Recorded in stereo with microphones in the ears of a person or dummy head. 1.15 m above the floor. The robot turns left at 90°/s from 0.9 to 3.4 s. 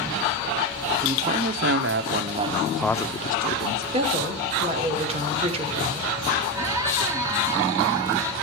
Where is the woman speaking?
35° right (ahead or behind), 3 m.